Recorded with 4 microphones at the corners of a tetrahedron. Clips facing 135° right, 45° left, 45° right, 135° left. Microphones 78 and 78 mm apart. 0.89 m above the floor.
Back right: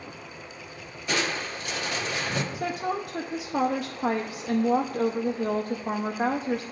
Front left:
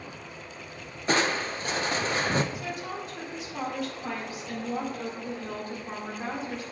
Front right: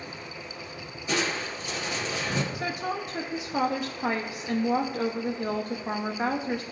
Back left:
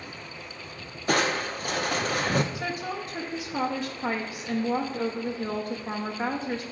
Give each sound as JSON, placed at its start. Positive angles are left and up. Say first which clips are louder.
{"t": 1.1, "sound": "crushing", "louder": "front left 3 dB, back left 4 dB", "azimuth_deg": 100, "distance_m": 0.5}
{"t": 2.5, "sound": "a woman speaking", "louder": "back right 6 dB, front right 1 dB", "azimuth_deg": -120, "distance_m": 0.6}